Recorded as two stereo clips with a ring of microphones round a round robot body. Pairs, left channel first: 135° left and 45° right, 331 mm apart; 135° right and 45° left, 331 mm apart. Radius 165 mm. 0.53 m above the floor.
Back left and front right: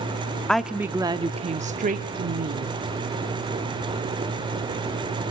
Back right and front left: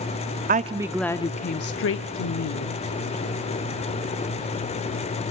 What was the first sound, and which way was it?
A woman speaking, 50° left.